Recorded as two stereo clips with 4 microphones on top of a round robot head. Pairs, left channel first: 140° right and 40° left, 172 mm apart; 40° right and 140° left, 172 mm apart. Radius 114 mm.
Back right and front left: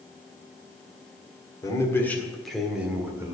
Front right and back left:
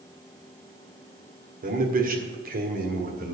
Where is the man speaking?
155° left, 1.8 m; by 3.4 s 115° left, 2 m.